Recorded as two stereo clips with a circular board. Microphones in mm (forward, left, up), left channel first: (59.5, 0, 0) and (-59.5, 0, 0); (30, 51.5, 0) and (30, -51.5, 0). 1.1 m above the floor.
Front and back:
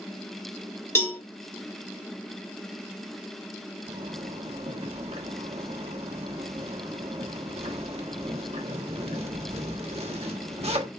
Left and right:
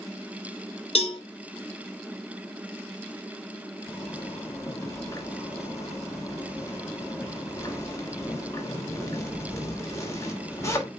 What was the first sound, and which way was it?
A cowbell, 70° left.